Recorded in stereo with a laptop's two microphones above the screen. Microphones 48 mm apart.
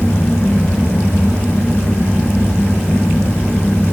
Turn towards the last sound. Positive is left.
turn(degrees=50)  # may be behind; listen again after turning